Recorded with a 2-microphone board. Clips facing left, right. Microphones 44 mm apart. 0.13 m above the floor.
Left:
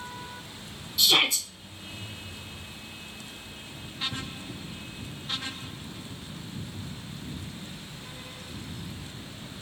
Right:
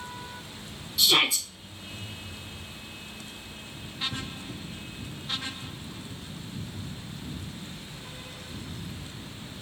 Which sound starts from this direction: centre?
A shout, at 1.0 s.